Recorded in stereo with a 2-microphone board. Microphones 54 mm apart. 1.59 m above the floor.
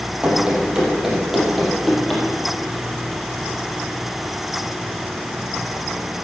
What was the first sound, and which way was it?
Running footsteps, 15° right (ahead or behind).